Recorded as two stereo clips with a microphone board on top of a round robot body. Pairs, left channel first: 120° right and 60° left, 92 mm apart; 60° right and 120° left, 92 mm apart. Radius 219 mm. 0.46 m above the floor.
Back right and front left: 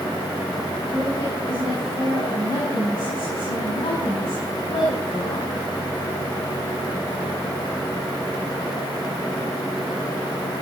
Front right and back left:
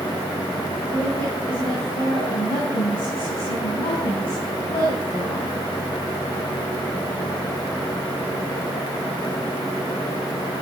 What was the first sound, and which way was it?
A woman speaking, 90° right.